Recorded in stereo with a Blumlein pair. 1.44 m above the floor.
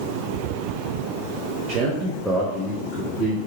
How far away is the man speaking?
About 0.6 m.